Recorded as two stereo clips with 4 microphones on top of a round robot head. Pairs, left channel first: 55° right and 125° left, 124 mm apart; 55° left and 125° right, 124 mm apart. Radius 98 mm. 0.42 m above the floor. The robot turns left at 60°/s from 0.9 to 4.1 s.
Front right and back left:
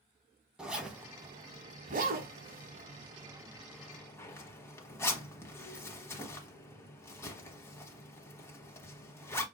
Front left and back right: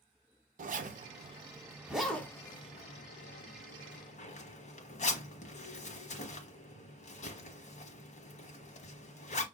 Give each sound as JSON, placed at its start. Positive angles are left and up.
{"t": 0.6, "sound": "a zipper", "azimuth_deg": -150, "distance_m": 1.1}